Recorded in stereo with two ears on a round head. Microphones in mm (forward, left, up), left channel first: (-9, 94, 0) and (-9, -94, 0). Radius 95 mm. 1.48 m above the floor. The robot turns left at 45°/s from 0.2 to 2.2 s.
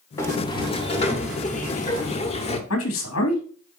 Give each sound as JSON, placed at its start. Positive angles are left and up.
{"t": 0.2, "sound": "a sliding door", "azimuth_deg": 155, "distance_m": 1.3}
{"t": 2.7, "sound": "a man speaking", "side_deg": 80, "distance_m": 2.5}